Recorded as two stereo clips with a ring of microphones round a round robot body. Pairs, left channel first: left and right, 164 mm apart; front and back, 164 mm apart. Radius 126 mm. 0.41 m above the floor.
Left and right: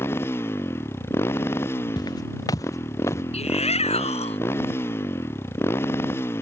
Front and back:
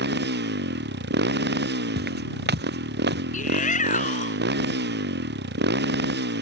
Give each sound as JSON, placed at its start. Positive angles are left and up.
{"t": 0.0, "sound": "a motorcycle", "azimuth_deg": 170}
{"t": 2.0, "sound": "footsteps", "azimuth_deg": 165}
{"t": 3.3, "sound": "a shout", "azimuth_deg": 40}